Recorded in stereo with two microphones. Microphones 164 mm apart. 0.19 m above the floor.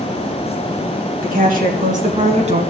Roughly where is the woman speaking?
Right.